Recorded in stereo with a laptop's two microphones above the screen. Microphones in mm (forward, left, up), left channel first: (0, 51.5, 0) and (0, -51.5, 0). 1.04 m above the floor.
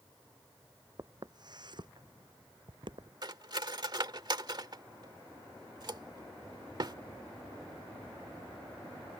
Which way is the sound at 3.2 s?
45° right (ahead or behind).